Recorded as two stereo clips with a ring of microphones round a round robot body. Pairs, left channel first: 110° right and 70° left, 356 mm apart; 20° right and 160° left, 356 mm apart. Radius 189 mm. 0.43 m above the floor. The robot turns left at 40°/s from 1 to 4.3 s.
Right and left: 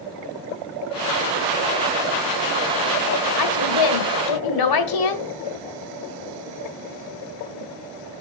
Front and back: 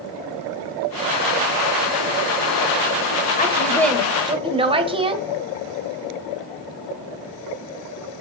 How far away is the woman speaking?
About 1.8 m.